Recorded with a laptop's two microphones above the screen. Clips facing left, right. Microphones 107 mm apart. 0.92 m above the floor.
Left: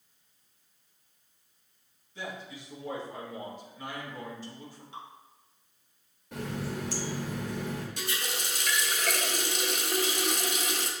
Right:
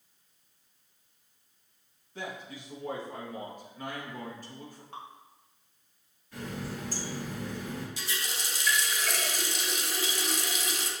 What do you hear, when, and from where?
2.1 s a man speaking: 50° right (ahead or behind), 1.1 m
4.9 s dripping: 55° right (ahead or behind), 1.0 m
6.3 s a running tap: 85° left, 0.8 m
8.0 s a running tap: 55° left (ahead or behind), 0.7 m